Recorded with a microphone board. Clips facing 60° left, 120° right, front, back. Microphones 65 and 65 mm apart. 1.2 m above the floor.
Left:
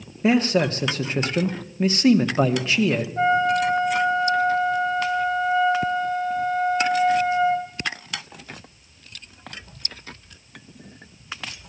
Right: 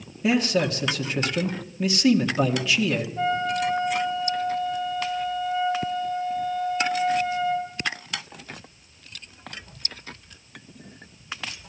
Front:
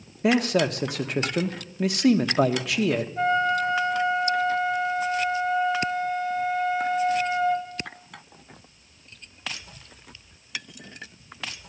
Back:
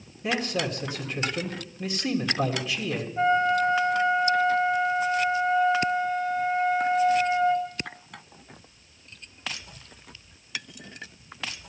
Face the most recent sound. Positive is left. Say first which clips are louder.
# left 7 dB, back 3 dB
turn(degrees=75)